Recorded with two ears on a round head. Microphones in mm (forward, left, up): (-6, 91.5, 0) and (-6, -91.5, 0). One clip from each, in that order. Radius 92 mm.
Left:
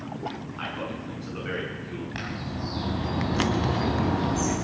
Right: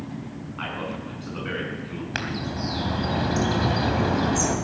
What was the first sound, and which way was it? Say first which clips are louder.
A man speaking: right 3 dB; 5° right (ahead or behind).